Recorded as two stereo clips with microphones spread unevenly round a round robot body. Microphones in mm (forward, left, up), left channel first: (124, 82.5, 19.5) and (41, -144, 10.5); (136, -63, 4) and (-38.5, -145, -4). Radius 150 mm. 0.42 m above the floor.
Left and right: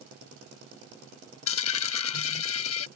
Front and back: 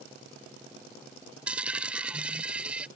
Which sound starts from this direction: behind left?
A dropped coin, at 1.5 s.